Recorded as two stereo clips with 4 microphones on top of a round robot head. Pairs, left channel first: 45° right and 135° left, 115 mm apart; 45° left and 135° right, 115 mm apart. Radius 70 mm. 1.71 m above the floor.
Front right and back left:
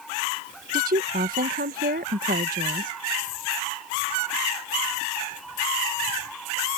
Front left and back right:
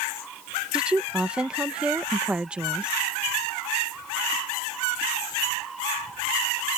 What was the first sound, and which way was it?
A woman speaking, 145° left.